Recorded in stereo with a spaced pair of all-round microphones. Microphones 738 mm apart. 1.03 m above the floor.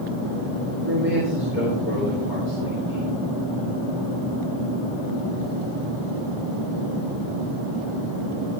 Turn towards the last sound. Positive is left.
turn(degrees=70)  # may be behind; listen again after turning